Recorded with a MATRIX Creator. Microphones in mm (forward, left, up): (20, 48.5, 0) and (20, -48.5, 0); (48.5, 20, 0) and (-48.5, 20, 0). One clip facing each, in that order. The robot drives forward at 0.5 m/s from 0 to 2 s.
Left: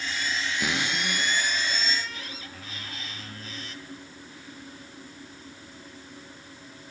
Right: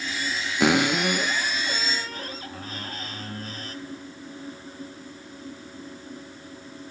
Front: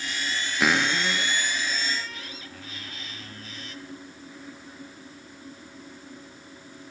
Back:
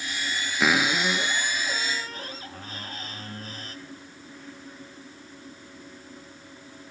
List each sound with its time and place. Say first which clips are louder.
0.6 s a cupboard door: right 13 dB, back 1 dB; 90° right, 0.8 m; by 3.8 s 135° right, 1.0 m